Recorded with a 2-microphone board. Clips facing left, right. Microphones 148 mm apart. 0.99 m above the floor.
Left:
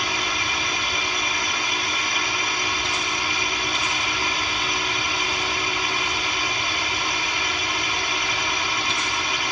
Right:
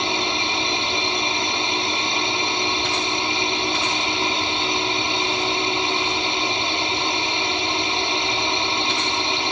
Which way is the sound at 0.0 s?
25° right (ahead or behind).